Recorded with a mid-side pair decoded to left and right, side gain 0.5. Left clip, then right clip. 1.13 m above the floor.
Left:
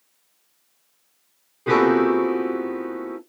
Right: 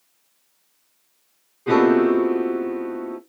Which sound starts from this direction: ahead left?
A piano, at 1.7 s.